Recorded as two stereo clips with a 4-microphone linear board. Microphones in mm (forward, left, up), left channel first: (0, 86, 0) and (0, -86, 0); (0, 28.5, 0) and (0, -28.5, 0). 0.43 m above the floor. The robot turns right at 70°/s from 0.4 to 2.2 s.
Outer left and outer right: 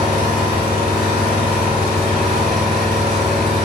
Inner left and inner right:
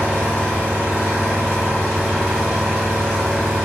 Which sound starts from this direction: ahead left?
An engine running, at 0.0 s.